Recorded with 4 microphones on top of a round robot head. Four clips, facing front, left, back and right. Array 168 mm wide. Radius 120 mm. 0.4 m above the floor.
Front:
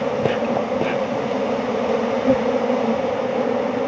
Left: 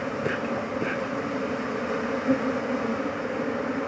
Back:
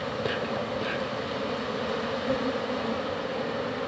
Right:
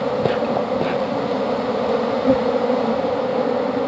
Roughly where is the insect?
Ahead right.